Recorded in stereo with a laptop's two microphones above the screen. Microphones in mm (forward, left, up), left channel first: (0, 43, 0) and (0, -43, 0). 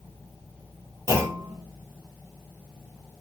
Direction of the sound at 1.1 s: 35° left (ahead or behind).